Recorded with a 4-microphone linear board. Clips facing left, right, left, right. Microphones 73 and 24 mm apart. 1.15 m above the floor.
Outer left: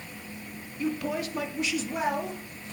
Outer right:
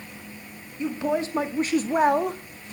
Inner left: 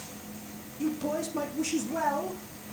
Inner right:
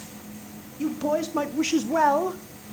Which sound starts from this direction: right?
A woman speaking, at 0.8 s.